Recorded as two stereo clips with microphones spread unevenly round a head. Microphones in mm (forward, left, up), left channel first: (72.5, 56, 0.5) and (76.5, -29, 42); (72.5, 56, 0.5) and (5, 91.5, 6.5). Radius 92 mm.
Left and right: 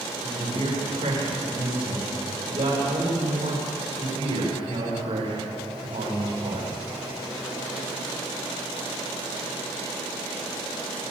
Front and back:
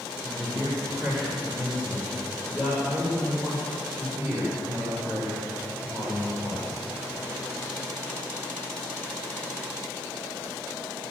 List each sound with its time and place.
0.2 s a man speaking: 120° right, 7.5 m